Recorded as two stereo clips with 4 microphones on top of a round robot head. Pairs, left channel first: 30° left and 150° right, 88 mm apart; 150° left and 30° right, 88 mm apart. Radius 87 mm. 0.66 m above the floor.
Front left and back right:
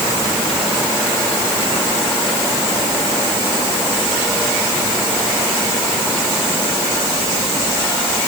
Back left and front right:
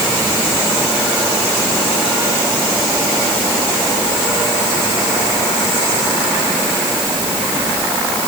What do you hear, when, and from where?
Only background noise.